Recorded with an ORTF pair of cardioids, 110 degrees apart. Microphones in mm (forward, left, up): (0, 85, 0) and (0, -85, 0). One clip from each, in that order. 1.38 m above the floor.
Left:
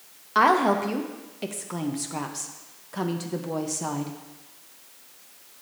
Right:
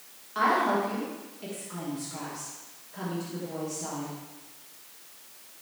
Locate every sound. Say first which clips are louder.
0.3 s a woman speaking: left 5 dB; 60° left, 0.8 m